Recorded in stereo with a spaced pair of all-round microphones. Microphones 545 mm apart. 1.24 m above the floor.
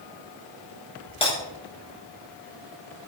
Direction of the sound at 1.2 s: 10° left (ahead or behind).